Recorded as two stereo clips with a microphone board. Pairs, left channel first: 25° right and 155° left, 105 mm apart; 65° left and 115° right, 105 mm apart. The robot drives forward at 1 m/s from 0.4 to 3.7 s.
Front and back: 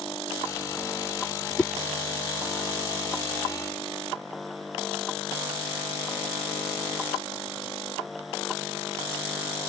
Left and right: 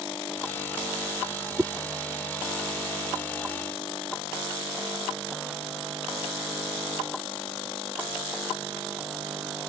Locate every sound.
1.6 s a whoosh: 85° right; by 1.7 s 110° right